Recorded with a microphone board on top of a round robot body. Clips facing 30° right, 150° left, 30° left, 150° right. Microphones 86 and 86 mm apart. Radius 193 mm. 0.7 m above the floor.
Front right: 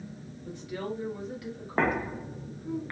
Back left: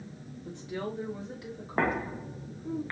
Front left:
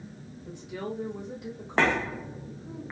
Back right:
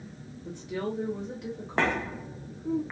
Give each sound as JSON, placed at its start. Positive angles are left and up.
{"t": 0.5, "sound": "a woman speaking", "azimuth_deg": -150, "distance_m": 3.0}